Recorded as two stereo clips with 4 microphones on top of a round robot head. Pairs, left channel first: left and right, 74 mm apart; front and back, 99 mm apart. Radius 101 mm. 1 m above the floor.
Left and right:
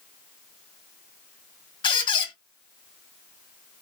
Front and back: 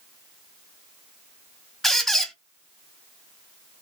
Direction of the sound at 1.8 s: 90° left.